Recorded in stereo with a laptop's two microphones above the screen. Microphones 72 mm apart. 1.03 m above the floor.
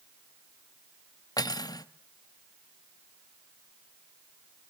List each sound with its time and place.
1.4 s cutlery clinking: 65° left (ahead or behind), 0.7 m